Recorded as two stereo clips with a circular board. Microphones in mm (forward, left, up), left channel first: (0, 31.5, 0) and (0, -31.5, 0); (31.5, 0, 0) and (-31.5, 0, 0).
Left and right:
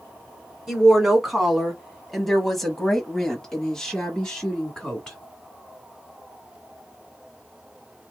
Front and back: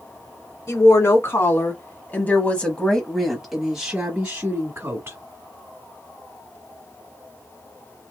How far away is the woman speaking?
About 1.9 m.